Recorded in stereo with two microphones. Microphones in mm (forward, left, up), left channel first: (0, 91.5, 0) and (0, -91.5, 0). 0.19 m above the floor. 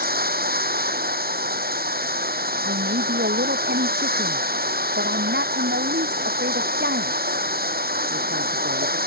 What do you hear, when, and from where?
0.0 s running water: 60° right (ahead or behind)
2.6 s a man speaking: 75° right (ahead or behind)